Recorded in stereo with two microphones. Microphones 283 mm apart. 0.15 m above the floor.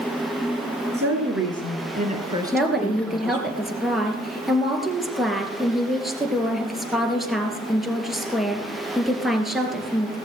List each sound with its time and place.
0.9 s a woman speaking: 55° right (ahead or behind), 3 m; by 3.5 s 15° left (ahead or behind), 3 m
2.5 s a woman speaking: centre (ahead or behind), 2.5 m